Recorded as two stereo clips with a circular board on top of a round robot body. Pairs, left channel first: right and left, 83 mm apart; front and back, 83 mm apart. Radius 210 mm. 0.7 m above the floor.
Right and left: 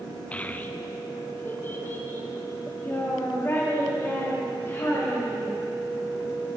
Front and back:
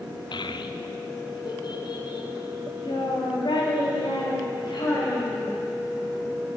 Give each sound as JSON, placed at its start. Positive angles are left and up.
{"t": 0.3, "sound": "a child speaking", "azimuth_deg": -15, "distance_m": 0.6}